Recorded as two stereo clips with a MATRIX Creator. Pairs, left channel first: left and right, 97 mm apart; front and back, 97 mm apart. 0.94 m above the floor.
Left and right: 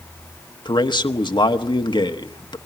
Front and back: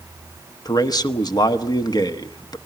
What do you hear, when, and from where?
0.7 s a man speaking: 50° left, 1.1 m